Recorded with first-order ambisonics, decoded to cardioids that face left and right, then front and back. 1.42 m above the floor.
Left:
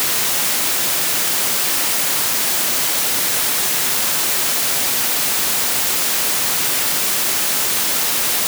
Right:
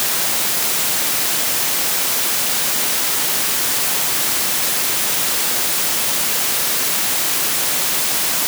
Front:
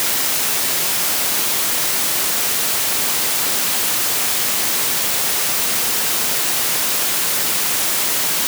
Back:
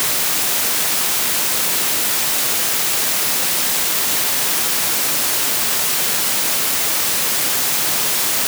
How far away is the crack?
I don't hear a crack.